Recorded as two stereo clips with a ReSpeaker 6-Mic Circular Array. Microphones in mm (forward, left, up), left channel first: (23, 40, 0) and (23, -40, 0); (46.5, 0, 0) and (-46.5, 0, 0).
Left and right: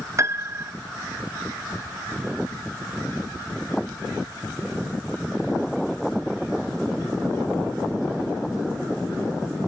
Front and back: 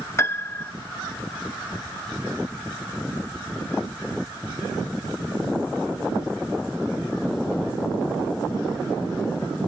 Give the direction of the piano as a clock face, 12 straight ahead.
2 o'clock.